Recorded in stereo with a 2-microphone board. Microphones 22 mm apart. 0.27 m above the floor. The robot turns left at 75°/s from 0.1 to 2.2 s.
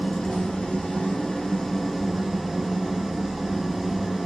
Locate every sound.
0.0 s an engine running: 135° left, 1.3 m; by 4.3 s 20° right, 1.3 m